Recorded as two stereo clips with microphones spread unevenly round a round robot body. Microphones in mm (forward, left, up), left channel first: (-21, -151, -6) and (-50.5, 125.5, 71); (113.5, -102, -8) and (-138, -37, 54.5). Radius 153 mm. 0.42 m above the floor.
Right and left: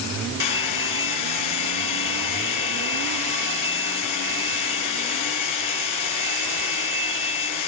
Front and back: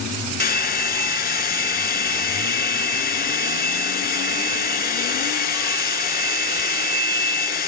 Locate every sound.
0.4 s a hair dryer: 70° right, 4.5 m